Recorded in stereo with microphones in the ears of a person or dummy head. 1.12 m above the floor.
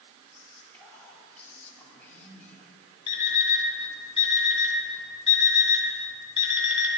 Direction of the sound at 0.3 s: 10° left (ahead or behind).